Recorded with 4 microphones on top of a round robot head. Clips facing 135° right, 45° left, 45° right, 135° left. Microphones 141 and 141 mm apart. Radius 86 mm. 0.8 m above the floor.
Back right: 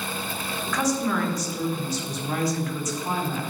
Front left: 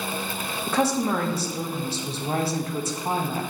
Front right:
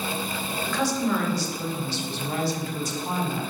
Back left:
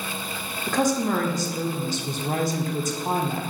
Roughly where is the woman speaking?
Left.